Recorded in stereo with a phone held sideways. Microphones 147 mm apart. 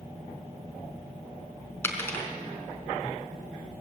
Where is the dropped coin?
15° left (ahead or behind), 4 m.